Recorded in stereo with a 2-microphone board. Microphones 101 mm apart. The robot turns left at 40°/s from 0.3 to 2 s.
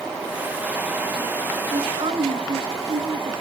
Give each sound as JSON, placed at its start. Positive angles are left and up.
{"t": 1.7, "sound": "a woman speaking", "side_deg": -75, "distance_m": 3.0}